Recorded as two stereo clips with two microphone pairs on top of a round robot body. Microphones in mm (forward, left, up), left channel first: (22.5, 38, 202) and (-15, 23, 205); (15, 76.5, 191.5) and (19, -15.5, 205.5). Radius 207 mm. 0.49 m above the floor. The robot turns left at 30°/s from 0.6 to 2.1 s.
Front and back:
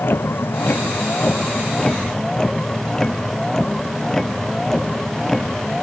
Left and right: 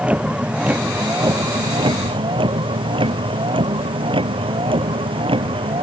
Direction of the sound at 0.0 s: 10° right.